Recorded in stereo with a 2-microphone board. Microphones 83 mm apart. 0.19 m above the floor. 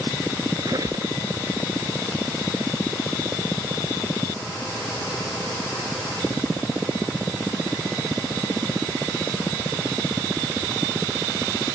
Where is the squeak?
50° right (ahead or behind).